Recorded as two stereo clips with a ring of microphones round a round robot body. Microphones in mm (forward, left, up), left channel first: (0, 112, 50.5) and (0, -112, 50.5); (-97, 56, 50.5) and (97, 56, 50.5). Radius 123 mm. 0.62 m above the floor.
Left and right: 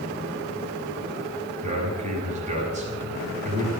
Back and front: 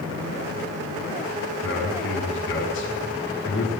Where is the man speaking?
150° right, 6.5 m.